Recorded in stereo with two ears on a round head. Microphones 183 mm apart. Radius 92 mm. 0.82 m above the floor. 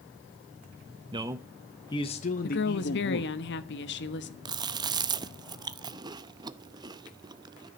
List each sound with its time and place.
1.1 s a man speaking: 25° right (ahead or behind), 0.9 m; by 3.3 s 60° left (ahead or behind), 1.7 m
2.4 s a woman speaking: 55° left (ahead or behind), 1.1 m
4.5 s chewing: 20° right (ahead or behind), 0.5 m